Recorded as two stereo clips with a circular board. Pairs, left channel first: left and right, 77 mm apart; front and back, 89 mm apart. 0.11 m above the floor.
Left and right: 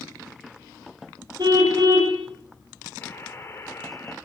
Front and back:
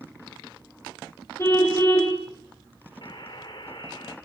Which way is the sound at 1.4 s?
60° right.